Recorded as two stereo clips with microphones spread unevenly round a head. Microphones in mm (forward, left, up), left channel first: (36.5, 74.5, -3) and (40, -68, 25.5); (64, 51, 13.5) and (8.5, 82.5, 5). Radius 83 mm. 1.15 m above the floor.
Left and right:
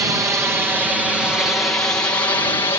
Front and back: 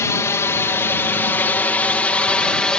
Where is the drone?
20° right; by 2.8 s 45° left.